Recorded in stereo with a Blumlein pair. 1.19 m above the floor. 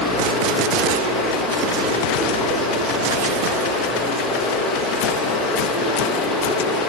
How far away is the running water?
About 0.7 m.